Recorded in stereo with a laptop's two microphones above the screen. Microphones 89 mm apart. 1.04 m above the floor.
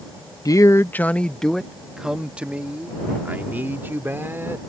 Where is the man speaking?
40° left (ahead or behind); by 4.6 s 25° right (ahead or behind).